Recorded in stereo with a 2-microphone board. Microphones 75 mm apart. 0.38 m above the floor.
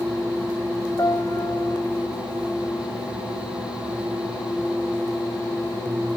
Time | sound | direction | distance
1.0 | a piano | 55° left (ahead or behind) | ?